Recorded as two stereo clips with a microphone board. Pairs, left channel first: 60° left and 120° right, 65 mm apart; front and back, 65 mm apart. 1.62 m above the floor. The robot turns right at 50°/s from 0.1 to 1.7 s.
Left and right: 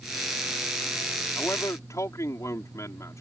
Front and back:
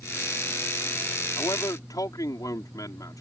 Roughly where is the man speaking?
Ahead.